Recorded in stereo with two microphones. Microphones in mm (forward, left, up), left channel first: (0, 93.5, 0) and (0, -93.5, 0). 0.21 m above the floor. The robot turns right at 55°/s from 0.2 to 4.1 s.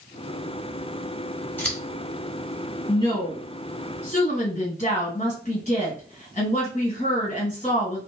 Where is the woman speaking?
30° left, 2.0 m; by 8.0 s 95° left, 2.0 m.